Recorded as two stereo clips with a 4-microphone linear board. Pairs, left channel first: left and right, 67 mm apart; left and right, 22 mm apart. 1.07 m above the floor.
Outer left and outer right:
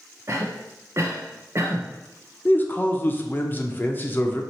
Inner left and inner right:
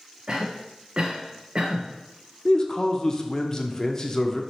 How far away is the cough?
About 0.5 m.